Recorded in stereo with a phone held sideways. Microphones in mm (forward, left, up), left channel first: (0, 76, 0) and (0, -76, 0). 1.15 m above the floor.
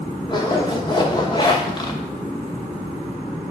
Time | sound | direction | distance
0.3 | a zipper | 30° left (ahead or behind) | 1.0 m